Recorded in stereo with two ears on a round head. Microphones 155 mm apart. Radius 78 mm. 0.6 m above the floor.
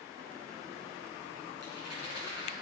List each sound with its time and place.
1.6 s a rattle: 65° left (ahead or behind), 5.5 m